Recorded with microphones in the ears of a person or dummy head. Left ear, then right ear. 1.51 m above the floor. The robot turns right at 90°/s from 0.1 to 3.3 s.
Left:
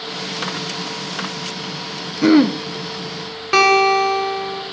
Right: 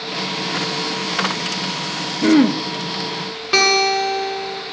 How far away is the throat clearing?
About 0.5 m.